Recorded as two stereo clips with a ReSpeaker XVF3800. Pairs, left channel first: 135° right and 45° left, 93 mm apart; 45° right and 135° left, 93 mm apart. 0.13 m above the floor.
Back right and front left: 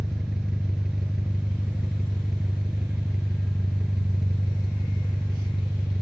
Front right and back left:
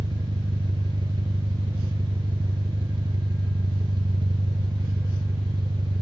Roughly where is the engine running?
Behind left.